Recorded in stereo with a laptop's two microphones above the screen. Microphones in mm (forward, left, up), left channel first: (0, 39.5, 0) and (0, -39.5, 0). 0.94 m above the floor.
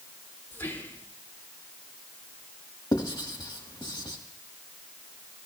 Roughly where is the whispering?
Left.